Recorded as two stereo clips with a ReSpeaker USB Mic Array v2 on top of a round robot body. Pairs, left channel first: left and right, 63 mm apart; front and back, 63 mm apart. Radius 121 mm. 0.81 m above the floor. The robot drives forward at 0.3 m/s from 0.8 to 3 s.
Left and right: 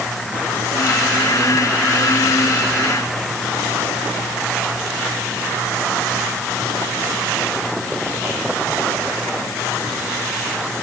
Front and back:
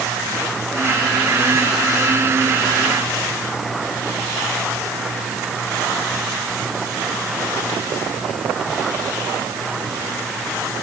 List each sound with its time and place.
Only background noise.